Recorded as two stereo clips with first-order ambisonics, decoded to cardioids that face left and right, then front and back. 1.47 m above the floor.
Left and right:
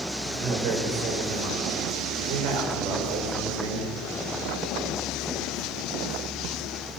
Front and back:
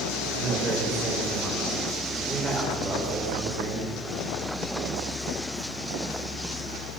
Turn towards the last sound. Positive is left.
turn(degrees=-120)